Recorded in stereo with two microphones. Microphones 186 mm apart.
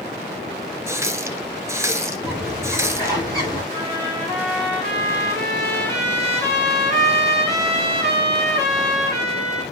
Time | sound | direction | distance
0.9 | a running tap | 15° right (ahead or behind) | 1.0 m
2.2 | a bird | 20° left (ahead or behind) | 8 m
3.7 | a trumpet | 15° left (ahead or behind) | 3.5 m